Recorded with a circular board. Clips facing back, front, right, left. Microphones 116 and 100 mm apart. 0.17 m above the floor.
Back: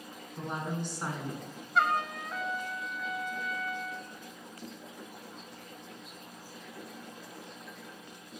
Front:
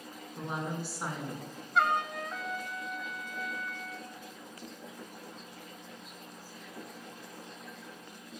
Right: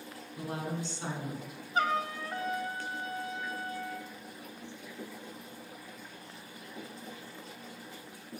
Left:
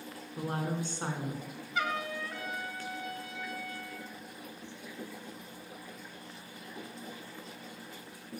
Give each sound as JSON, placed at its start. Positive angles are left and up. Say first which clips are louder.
{"t": 0.4, "sound": "a woman speaking", "louder": "back 1 dB, left 2 dB", "azimuth_deg": 85, "distance_m": 1.5}
{"t": 1.8, "sound": "a trumpet", "louder": "even, right 4 dB", "azimuth_deg": -90, "distance_m": 0.5}